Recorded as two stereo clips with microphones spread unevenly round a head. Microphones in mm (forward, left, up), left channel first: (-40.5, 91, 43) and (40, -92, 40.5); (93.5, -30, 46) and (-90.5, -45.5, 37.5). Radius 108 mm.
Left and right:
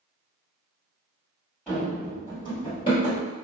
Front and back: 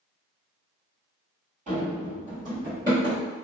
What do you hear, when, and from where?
1.7 s running footsteps: 165° right, 1.7 m; by 3.2 s 110° left, 1.7 m